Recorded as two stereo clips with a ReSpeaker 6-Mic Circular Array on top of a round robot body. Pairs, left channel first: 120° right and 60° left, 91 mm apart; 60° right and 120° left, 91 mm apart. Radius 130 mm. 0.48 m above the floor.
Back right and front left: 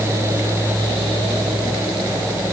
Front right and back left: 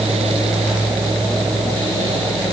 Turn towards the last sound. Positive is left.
No sound to turn to.